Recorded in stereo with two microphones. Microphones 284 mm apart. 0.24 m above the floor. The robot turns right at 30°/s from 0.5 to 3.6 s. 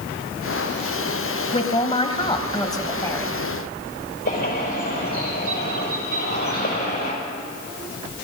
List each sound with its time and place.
1.5 s a man speaking: 25° left (ahead or behind), 1.1 m; by 3.4 s 5° left (ahead or behind), 1.1 m
4.2 s a bird: 35° left (ahead or behind), 5 m